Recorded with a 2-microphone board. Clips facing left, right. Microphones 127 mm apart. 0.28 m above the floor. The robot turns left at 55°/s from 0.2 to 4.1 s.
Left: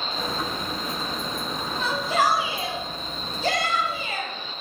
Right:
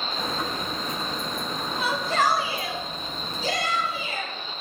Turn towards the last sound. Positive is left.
turn(degrees=65)